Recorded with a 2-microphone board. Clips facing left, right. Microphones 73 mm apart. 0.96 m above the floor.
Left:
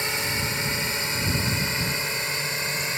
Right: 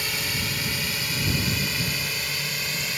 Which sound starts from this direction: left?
A drone, at 0.0 s.